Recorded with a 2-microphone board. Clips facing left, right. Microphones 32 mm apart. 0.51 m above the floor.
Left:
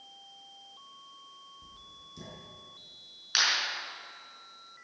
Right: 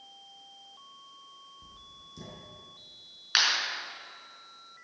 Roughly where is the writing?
Centre.